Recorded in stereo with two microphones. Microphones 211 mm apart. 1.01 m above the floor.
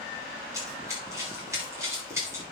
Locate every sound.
0.5 s running footsteps: 15° right (ahead or behind), 7 m